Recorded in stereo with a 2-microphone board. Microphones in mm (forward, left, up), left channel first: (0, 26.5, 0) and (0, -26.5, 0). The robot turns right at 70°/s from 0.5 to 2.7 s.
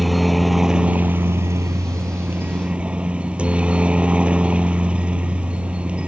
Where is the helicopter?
Straight behind; by 6.1 s 25° right.